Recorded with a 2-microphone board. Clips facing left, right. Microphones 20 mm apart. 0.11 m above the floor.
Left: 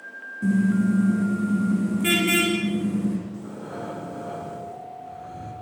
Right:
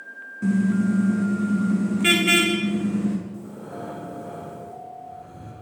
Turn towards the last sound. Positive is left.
turn(degrees=25)  # may be behind; listen again after turning